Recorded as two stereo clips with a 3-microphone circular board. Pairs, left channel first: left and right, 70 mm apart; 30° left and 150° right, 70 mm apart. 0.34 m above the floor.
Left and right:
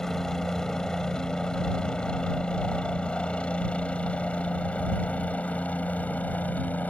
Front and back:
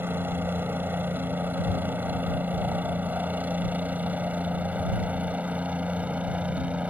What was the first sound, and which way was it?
A helicopter, 170° left.